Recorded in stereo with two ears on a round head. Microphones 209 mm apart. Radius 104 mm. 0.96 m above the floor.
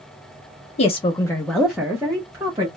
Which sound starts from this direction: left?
A woman speaking, at 0.8 s.